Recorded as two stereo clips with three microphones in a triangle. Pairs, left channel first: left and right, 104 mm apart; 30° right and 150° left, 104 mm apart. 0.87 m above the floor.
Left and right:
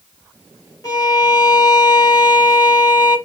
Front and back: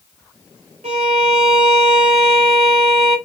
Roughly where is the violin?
Behind left.